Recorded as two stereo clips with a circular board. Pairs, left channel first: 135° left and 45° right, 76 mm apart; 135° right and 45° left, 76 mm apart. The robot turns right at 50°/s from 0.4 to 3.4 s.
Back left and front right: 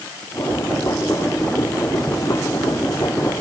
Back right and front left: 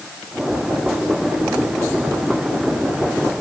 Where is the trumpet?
I don't hear a trumpet.